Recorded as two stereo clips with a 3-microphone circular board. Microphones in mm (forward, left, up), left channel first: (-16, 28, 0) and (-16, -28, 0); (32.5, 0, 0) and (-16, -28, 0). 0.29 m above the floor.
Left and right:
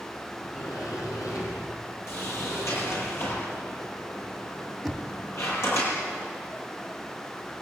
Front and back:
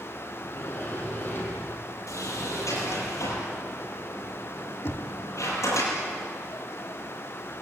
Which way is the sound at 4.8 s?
5° left.